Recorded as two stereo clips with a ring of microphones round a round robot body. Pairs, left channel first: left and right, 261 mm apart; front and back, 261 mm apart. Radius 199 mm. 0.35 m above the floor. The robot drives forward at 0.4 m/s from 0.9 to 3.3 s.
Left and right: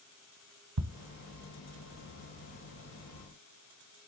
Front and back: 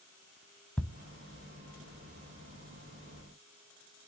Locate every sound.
0.8 s ticking: 85° right, 1.0 m